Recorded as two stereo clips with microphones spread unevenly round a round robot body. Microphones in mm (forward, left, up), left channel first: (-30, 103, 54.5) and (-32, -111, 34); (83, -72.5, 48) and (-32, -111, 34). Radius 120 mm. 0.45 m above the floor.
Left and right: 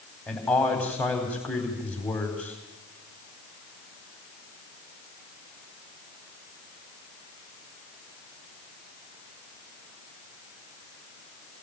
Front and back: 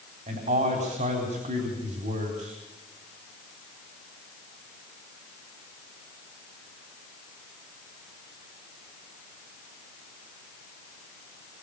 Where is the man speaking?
175° left, 4 m.